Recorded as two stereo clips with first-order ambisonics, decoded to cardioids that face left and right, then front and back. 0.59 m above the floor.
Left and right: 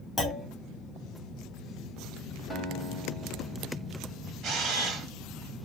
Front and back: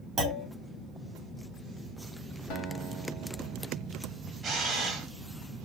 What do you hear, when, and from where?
0.2 s a clunk: 150° left, 1.3 m
2.5 s a guitar: 5° right, 1.6 m
4.4 s a camera shutter: 120° right, 1.2 m